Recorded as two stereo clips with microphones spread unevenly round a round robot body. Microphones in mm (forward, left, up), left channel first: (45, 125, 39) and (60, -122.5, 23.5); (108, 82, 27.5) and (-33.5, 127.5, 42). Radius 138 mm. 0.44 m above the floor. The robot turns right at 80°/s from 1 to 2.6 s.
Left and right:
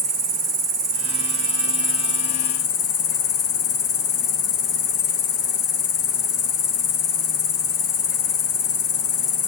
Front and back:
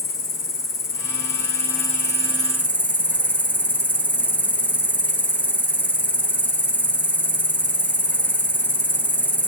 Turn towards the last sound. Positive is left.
turn(degrees=65)